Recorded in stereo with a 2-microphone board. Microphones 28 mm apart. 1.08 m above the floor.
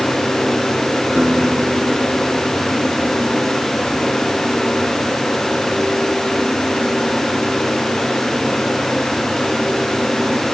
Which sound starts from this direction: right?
A guitar, at 1.2 s.